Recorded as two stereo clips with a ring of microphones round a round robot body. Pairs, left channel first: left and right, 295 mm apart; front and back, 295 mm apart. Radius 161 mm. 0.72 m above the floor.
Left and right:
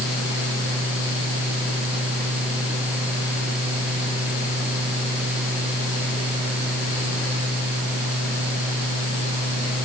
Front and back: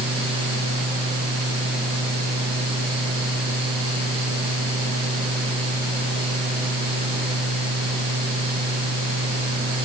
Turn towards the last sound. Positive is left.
No sound to turn to.